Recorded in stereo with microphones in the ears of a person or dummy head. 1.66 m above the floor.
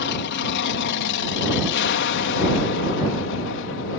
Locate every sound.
0.0 s an aircraft: 60° left (ahead or behind); by 4.0 s 65° left (ahead or behind)